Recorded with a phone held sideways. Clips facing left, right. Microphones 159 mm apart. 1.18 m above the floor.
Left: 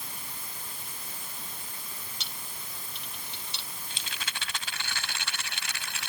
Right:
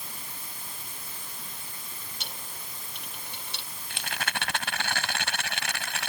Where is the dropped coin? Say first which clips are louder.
Right 2 dB; 55° right (ahead or behind).